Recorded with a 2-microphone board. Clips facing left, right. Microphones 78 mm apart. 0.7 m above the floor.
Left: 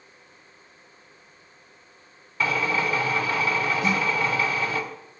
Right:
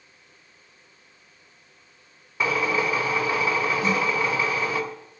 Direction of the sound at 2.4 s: 20° right (ahead or behind).